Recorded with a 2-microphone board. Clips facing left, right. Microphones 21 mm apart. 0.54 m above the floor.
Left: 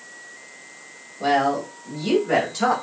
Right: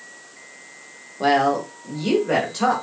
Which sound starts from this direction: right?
A woman speaking, at 1.2 s.